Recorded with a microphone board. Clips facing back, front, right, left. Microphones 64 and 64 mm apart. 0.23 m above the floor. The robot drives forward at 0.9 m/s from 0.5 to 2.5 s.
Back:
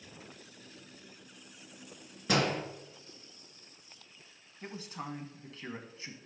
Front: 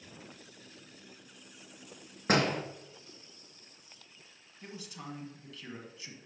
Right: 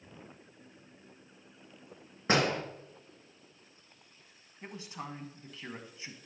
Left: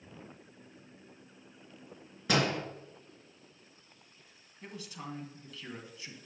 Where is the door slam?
40° right, 3 m.